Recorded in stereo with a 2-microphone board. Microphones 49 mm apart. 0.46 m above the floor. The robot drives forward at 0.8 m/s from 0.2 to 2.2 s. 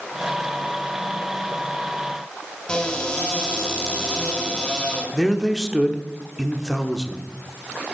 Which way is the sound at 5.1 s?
10° right (ahead or behind).